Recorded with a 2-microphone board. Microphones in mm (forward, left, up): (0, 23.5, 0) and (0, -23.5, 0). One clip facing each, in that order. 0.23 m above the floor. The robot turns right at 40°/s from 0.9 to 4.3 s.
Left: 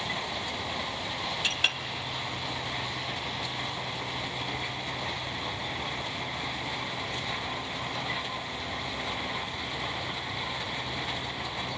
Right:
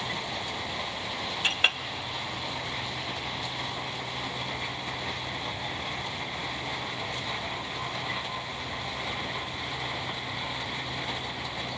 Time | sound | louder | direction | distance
1.4 | a clink | right 4 dB | 30° right (ahead or behind) | 0.6 m